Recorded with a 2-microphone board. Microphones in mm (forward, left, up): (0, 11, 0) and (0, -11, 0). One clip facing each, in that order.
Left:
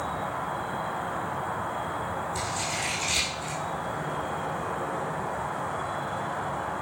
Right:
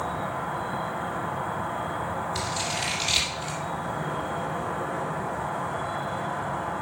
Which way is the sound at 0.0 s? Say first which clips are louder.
Right 1 dB; 5° left (ahead or behind).